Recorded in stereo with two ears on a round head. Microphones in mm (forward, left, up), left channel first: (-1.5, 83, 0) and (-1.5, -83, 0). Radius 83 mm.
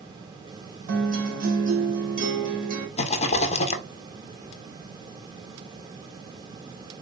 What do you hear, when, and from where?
0.9 s a guitar: 50° right (ahead or behind), 1.1 m
3.0 s a rattle: 35° left (ahead or behind), 0.6 m